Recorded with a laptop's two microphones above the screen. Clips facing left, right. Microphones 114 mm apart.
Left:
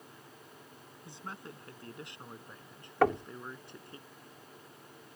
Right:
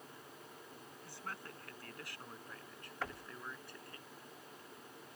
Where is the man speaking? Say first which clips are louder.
Left 3 dB; 20° left (ahead or behind).